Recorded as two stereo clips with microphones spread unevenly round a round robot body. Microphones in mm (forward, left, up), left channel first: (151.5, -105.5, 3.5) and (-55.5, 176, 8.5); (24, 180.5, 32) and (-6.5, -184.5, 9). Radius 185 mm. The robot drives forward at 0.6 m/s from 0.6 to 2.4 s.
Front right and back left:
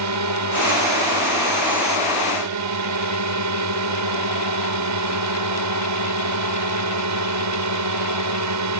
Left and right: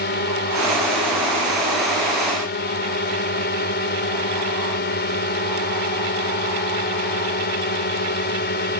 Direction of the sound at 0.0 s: 140° left.